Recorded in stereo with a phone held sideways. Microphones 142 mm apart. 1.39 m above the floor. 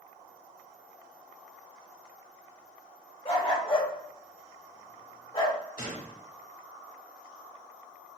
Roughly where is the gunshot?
Left.